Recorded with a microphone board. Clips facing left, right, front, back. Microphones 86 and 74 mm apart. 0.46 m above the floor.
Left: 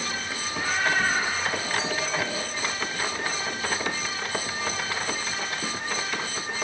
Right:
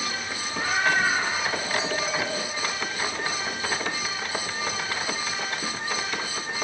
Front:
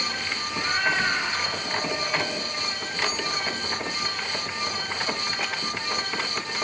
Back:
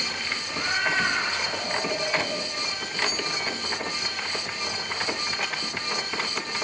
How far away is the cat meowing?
About 6.5 m.